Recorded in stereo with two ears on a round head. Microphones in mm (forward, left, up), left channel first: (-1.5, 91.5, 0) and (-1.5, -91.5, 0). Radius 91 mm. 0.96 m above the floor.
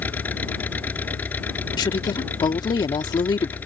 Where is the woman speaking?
20° left (ahead or behind).